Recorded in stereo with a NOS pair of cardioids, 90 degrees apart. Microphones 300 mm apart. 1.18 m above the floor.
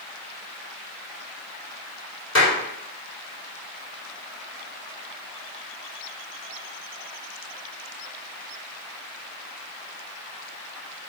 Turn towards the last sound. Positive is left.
turn(degrees=45)